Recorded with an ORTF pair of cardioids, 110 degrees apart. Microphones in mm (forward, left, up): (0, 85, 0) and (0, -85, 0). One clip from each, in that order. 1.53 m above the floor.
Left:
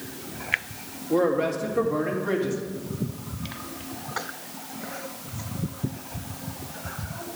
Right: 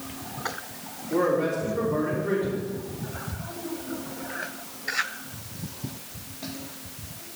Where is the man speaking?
50° left, 3 m.